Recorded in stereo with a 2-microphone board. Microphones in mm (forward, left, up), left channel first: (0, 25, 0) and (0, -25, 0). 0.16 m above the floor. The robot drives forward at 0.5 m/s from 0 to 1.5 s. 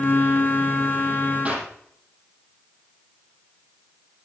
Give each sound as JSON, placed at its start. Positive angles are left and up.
{"t": 1.4, "sound": "a clap", "side_deg": -25, "distance_m": 4.5}